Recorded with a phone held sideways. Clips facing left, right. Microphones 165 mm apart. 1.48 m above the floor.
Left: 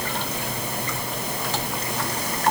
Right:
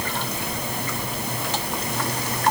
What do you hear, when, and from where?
Only background noise.